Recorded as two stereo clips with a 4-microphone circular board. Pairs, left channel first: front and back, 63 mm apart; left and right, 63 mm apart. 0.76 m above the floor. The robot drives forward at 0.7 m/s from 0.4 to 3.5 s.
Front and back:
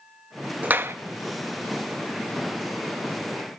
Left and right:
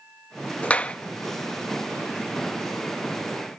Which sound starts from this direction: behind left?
A clap, at 0.6 s.